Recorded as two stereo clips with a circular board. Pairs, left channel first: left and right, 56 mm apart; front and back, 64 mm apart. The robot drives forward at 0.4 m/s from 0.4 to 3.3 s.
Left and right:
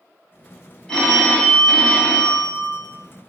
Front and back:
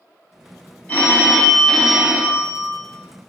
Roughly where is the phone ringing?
Ahead left.